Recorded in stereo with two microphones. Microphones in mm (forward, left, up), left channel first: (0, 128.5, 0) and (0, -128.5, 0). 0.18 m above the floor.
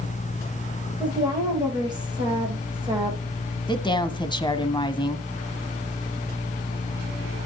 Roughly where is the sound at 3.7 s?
Centre.